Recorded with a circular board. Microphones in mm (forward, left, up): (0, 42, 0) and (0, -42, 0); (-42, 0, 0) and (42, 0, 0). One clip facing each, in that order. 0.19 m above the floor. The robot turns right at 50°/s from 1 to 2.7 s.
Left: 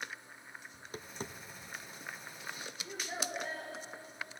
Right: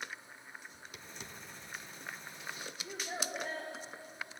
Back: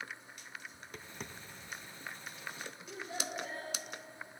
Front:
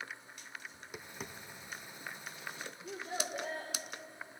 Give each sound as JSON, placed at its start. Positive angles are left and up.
{"t": 0.7, "sound": "tapping", "azimuth_deg": 75, "distance_m": 0.5}
{"t": 2.8, "sound": "a child speaking", "azimuth_deg": -30, "distance_m": 7.5}